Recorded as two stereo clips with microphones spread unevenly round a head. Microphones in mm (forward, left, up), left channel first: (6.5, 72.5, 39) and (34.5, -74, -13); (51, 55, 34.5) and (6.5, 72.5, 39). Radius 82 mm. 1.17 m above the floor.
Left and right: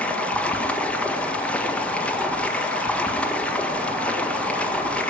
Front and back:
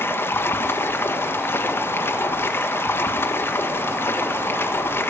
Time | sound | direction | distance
0.0 | running water | 15° left | 1.3 m